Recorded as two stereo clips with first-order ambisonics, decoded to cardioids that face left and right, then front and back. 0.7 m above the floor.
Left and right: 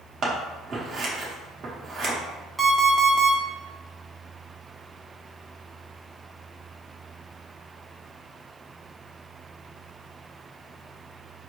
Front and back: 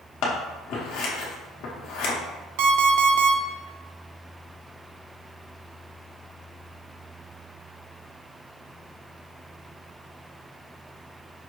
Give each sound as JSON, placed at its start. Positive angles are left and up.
{"t": 0.2, "sound": "scissors", "azimuth_deg": -25, "distance_m": 0.9}
{"t": 2.6, "sound": "an alarm clock", "azimuth_deg": -175, "distance_m": 0.7}